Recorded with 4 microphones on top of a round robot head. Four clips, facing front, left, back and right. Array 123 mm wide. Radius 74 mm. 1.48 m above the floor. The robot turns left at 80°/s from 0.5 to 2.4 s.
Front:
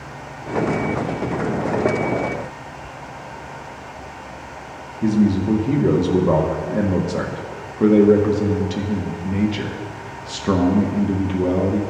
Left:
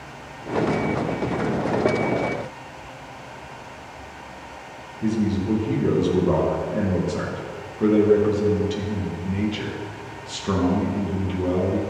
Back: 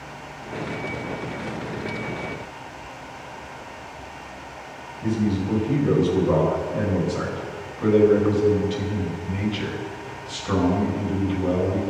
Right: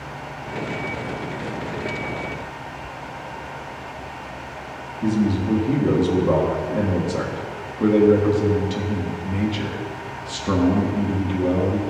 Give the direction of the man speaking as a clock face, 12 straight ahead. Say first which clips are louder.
Right 2 dB, front 6 dB; 12 o'clock.